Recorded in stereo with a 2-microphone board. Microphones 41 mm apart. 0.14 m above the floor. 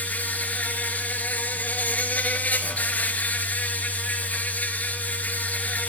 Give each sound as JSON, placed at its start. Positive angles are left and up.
{"t": 0.0, "sound": "an insect", "side_deg": 40, "distance_m": 0.9}